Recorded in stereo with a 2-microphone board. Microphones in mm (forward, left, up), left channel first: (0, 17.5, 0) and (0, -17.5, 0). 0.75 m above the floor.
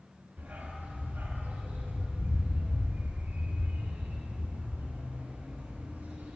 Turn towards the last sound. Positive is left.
turn(degrees=-75)  # may be behind; listen again after turning